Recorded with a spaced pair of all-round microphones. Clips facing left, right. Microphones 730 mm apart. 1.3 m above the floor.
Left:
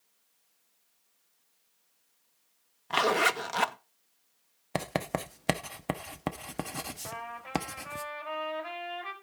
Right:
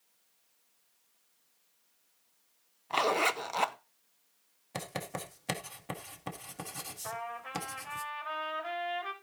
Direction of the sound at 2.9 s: 50° left (ahead or behind).